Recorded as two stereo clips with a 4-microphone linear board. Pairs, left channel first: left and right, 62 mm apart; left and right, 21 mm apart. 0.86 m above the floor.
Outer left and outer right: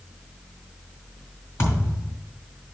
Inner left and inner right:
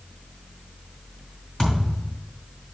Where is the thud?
45° left (ahead or behind), 3.5 m.